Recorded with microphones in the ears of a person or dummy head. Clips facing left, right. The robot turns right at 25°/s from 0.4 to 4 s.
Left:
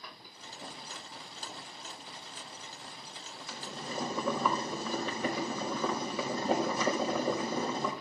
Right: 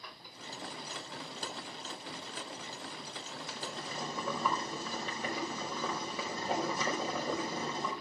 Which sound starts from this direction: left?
Boiling, at 3.5 s.